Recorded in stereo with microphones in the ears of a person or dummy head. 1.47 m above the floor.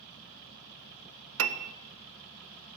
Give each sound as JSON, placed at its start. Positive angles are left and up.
{"t": 1.4, "sound": "a piano", "side_deg": -60, "distance_m": 0.5}